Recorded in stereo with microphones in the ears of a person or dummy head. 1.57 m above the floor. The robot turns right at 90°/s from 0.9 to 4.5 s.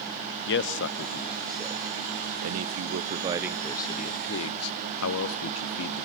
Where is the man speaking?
60° left (ahead or behind), 0.7 m; by 6.0 s 85° left, 0.7 m.